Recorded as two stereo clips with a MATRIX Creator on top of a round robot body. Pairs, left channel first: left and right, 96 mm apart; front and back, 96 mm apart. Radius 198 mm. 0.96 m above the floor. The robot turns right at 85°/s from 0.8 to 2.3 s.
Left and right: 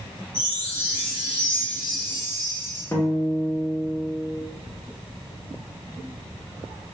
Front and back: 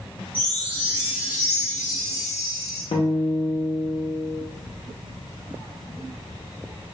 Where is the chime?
40° left, 1.2 m; by 2.8 s 165° left, 1.2 m.